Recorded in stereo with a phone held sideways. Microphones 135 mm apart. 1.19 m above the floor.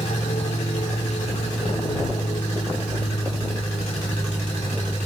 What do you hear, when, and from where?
0.0 s an aircraft: 65° left (ahead or behind); by 5.1 s 40° left (ahead or behind)